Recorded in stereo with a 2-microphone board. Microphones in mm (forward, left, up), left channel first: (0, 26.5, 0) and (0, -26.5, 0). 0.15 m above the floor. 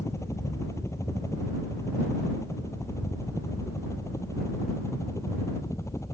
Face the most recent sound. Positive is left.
turn(degrees=70)  # may be behind; listen again after turning